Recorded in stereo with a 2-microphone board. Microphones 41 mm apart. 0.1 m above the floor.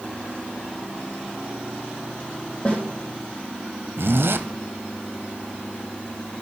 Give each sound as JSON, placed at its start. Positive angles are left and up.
{"t": 2.6, "sound": "a snare drum", "side_deg": 35, "distance_m": 3.5}
{"t": 4.0, "sound": "a zipper", "side_deg": -75, "distance_m": 0.7}